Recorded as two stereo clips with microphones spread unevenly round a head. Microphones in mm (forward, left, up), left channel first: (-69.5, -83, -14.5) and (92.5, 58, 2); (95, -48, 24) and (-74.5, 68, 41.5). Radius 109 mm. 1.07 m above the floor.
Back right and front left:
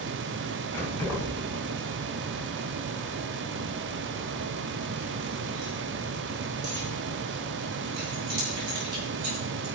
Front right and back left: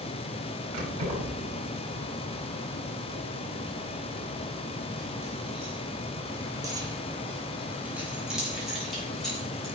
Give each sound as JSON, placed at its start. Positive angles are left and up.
{"t": 0.7, "sound": "keys jangling", "azimuth_deg": 140, "distance_m": 5.0}